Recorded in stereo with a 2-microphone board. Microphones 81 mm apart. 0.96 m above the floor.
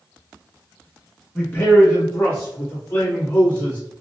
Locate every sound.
1.4 s a man speaking: 25° left (ahead or behind), 1.3 m; by 3.8 s 35° left (ahead or behind), 3 m